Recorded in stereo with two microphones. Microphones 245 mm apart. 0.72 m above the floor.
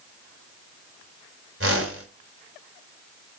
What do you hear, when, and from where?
1.6 s a whoosh: 65° right (ahead or behind), 3.5 m